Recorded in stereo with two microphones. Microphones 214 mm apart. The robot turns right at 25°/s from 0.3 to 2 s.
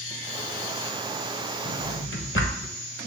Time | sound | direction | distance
1.6 | a drawer | 65° left (ahead or behind) | 1.0 m